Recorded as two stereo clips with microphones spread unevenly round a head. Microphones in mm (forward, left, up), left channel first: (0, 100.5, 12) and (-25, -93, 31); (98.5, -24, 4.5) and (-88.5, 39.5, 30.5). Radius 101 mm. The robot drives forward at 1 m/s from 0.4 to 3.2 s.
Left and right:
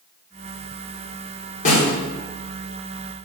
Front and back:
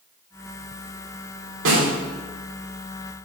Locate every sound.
1.6 s a snare drum: 135° left, 2.5 m; by 1.9 s 140° left, 3 m